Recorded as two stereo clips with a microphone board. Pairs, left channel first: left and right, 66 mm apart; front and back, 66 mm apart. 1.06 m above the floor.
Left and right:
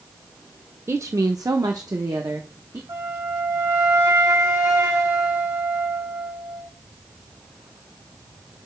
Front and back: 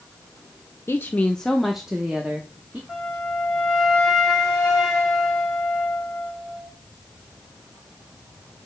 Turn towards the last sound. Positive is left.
turn(degrees=-90)